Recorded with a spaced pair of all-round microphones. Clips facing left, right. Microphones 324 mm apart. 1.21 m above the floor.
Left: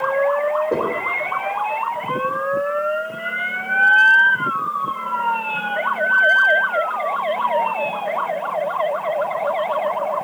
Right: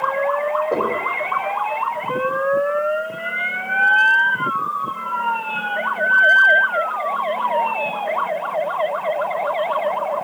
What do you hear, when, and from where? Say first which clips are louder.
0.7 s knocking: right 2 dB; 25° left (ahead or behind), 4 m